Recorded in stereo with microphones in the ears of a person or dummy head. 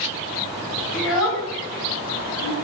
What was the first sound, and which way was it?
A child speaking, 5° right (ahead or behind).